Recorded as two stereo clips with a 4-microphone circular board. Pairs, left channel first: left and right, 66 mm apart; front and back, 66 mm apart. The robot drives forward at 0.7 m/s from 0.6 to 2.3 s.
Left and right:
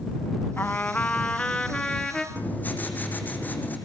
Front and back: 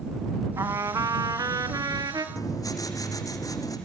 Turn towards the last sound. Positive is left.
turn(degrees=25)